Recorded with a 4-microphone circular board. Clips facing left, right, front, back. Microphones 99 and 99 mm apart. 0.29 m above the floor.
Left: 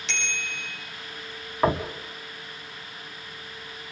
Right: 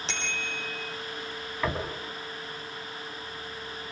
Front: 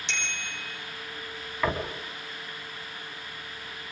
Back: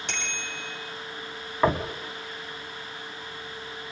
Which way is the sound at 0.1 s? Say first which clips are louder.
Left 2 dB, even; 145° right.